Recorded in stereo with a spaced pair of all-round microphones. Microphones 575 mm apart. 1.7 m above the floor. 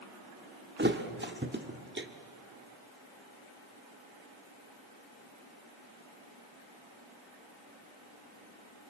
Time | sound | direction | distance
0.8 | a thud | 20° right (ahead or behind) | 1.4 m